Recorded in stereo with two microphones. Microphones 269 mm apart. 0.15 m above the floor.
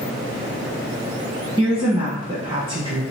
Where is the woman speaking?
20° right (ahead or behind), 1.1 m.